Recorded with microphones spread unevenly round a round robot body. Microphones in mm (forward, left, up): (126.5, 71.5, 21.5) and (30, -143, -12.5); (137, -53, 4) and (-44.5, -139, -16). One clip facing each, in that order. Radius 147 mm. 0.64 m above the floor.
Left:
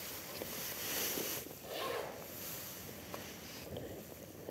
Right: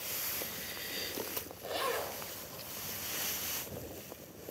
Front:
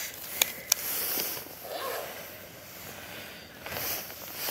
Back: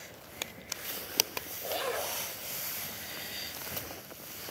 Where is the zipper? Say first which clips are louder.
Right 5 dB, back 2 dB; 100° right, 3 m.